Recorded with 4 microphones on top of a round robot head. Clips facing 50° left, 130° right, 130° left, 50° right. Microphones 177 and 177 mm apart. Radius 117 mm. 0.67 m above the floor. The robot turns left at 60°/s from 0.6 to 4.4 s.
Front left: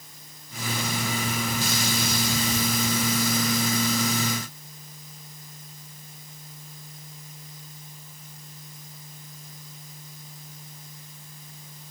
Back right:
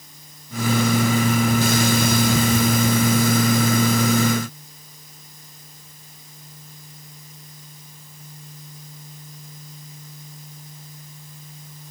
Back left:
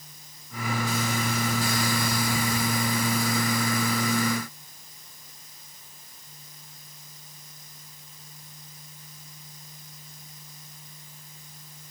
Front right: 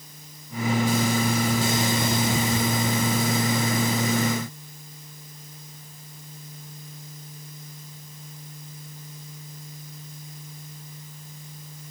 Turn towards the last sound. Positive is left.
No sound to turn to.